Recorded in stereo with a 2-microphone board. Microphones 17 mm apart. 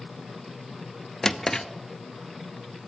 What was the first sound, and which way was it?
A drawer, 30° left (ahead or behind).